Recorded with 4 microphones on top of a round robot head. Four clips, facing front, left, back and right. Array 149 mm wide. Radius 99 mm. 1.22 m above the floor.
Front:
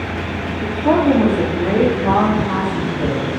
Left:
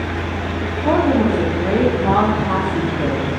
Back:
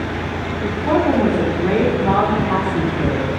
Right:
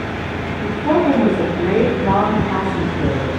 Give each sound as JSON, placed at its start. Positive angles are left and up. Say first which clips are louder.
{"t": 0.6, "sound": "a woman speaking", "louder": "right 1 dB, front 2 dB", "azimuth_deg": 15, "distance_m": 3.0}